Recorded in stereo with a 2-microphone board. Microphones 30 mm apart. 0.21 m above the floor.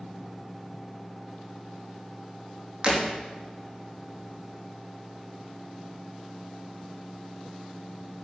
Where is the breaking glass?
25° right (ahead or behind), 4.5 m.